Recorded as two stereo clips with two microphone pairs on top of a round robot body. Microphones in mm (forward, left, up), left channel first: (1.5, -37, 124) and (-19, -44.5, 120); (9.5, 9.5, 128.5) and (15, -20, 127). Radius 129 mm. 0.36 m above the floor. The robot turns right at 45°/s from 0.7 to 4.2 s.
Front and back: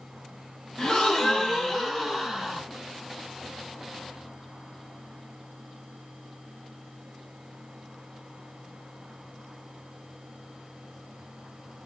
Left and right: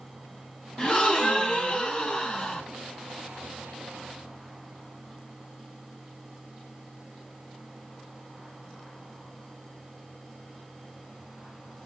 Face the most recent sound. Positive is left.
turn(degrees=-140)